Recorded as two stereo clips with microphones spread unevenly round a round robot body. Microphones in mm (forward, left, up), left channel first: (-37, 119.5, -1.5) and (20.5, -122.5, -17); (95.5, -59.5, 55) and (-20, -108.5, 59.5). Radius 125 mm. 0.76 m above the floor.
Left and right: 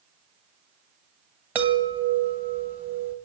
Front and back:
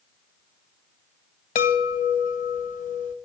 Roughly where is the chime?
Ahead.